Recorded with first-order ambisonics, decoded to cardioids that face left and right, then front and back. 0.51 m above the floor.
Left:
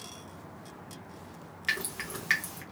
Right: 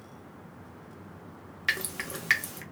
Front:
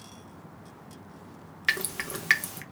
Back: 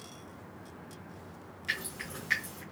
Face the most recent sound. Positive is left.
turn(degrees=-15)